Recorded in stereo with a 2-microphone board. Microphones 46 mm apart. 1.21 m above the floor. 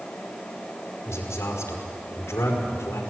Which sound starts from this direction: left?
A man speaking, at 1.1 s.